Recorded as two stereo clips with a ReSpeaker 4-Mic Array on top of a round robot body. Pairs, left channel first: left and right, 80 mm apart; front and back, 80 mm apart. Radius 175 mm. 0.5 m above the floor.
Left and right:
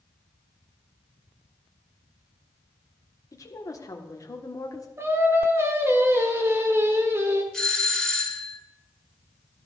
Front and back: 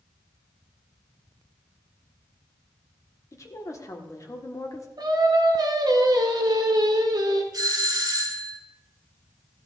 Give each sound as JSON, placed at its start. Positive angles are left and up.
{"t": 3.3, "sound": "a woman speaking", "azimuth_deg": 45, "distance_m": 1.5}
{"t": 5.0, "sound": "singing", "azimuth_deg": -150, "distance_m": 1.6}
{"t": 7.5, "sound": "a doorbell", "azimuth_deg": 170, "distance_m": 2.5}